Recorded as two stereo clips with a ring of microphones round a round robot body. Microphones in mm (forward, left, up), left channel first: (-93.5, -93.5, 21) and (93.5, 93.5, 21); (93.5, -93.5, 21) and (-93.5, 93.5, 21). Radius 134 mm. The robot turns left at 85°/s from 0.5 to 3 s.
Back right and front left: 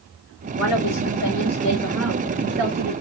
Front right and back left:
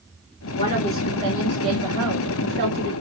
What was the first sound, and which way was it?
A woman speaking, 105° right.